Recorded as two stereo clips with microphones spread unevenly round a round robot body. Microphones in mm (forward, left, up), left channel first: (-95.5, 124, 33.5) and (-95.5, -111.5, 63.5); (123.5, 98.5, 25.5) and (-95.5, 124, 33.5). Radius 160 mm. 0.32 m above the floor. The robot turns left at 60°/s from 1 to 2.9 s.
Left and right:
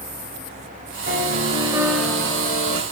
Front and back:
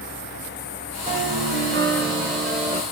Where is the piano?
130° right, 1.1 m; by 2.8 s 125° left, 1.1 m.